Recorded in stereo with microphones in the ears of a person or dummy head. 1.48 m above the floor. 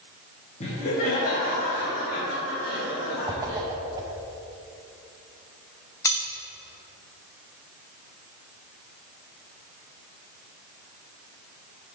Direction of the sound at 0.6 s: 35° left (ahead or behind).